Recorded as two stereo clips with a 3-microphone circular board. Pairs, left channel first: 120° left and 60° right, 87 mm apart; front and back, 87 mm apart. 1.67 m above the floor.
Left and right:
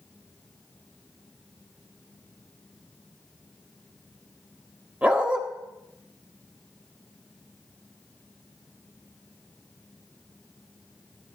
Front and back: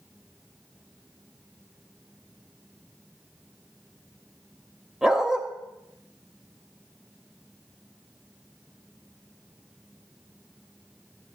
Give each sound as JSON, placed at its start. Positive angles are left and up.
{"t": 5.0, "sound": "a dog barking", "azimuth_deg": -105, "distance_m": 1.1}